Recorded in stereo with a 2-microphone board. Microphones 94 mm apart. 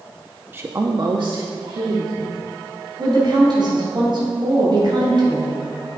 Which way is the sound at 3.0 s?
55° right (ahead or behind).